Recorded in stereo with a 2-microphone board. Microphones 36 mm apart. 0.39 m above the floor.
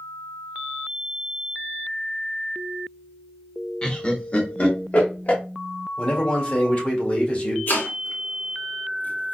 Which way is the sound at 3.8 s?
20° left (ahead or behind).